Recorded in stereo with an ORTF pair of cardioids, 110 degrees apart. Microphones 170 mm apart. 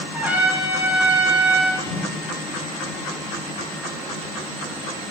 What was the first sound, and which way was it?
A trumpet, 10° right.